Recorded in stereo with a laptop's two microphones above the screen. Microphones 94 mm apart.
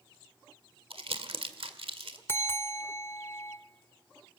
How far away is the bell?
About 0.8 m.